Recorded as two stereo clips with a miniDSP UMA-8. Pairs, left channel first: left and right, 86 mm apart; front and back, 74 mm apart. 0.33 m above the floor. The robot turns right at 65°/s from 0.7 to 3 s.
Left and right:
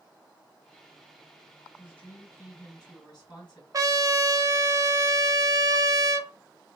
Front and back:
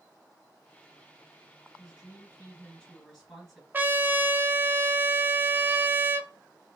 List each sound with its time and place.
1.8 s a woman speaking: 10° left, 2.5 m; by 3.6 s 90° left, 2.5 m
3.7 s a trumpet: 120° right, 0.6 m